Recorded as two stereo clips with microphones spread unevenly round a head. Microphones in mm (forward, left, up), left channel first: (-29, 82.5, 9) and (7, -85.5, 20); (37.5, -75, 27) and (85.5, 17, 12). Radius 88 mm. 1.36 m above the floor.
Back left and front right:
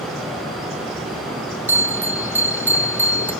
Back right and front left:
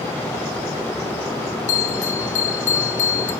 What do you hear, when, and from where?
1.7 s a bell: 155° right, 0.6 m